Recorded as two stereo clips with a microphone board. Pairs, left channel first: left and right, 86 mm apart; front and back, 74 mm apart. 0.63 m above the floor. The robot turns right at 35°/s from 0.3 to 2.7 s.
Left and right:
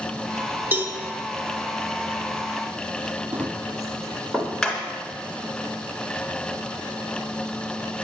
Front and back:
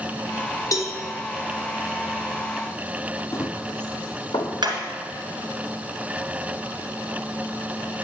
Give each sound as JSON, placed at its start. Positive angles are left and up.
{"t": 0.7, "sound": "a cowbell", "azimuth_deg": -30, "distance_m": 1.0}
{"t": 3.3, "sound": "running footsteps", "azimuth_deg": -30, "distance_m": 0.9}
{"t": 4.6, "sound": "hammering", "azimuth_deg": 165, "distance_m": 2.0}